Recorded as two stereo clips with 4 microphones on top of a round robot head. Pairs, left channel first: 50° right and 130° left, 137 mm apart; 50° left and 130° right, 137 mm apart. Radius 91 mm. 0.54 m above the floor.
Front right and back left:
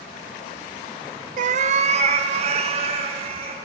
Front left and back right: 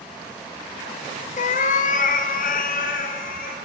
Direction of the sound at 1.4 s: 95° left.